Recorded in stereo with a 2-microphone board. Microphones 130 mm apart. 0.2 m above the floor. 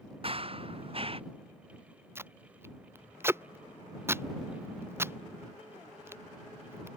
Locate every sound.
0.2 s running footsteps: 45° right (ahead or behind)
2.1 s tape being pulled: 20° right (ahead or behind)